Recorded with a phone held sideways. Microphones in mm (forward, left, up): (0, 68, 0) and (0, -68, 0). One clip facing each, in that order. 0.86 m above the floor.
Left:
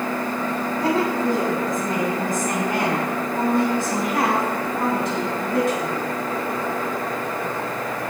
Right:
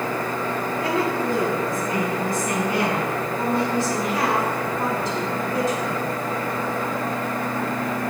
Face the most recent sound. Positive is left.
turn(degrees=75)  # may be behind; listen again after turning